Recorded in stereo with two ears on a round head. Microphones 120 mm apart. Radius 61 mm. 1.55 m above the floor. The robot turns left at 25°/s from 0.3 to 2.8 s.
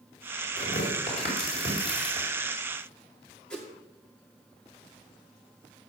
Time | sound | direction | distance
0.6 | tearing paper | 70° left (ahead or behind) | 4.5 m
3.5 | a whoosh | 5° left (ahead or behind) | 1.9 m